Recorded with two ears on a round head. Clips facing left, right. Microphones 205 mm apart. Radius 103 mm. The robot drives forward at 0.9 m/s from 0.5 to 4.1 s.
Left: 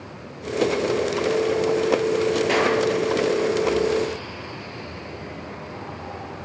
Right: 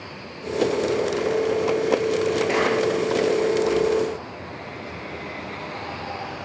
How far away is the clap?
About 9 m.